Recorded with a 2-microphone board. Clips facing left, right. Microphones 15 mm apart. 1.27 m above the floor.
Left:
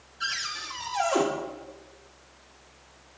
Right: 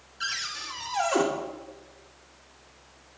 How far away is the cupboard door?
About 2.5 m.